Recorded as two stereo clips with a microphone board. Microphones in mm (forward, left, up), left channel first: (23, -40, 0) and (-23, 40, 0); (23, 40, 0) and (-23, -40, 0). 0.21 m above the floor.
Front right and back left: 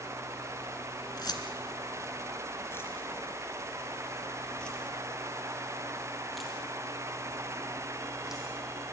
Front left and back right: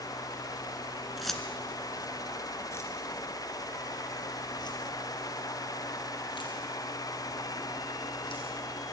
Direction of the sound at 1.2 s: 30° right.